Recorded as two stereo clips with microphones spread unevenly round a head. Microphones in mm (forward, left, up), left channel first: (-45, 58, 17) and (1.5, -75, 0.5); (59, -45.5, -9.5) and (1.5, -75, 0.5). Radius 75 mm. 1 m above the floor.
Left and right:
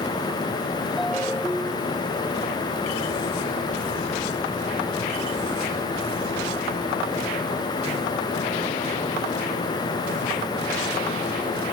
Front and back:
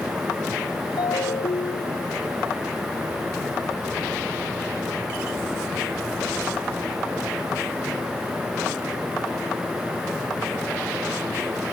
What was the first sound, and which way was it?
A ringtone, 20° left.